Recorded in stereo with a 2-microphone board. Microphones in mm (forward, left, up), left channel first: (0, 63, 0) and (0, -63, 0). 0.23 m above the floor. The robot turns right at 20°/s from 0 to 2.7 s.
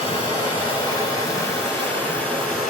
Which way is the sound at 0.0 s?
125° left.